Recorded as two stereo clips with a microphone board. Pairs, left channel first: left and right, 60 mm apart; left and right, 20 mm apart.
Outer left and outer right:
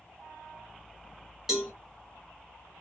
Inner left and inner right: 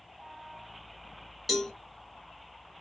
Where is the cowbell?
5° right (ahead or behind), 1.0 m.